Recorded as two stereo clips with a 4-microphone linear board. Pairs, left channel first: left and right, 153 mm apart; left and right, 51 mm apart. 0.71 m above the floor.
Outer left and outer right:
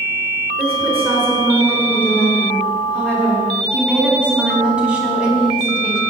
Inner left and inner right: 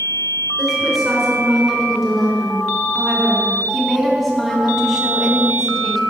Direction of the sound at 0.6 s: 15° right (ahead or behind).